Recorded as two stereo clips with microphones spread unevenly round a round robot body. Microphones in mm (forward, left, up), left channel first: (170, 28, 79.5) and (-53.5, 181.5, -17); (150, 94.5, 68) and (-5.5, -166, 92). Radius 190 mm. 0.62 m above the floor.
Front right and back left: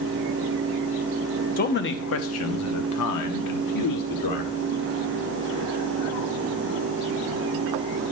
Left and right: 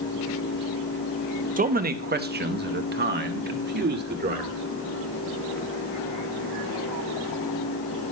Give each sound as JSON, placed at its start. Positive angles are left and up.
{"t": 1.6, "sound": "a man speaking", "azimuth_deg": -95, "distance_m": 1.0}